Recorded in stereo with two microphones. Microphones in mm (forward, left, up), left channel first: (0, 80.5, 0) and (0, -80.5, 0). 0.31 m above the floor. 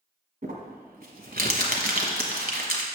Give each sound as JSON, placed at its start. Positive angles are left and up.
{"t": 0.4, "sound": "crumpling", "side_deg": -70, "distance_m": 1.2}